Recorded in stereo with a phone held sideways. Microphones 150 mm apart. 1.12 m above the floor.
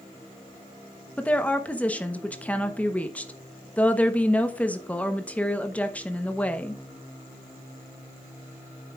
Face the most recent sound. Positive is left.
turn(degrees=10)  # may be behind; listen again after turning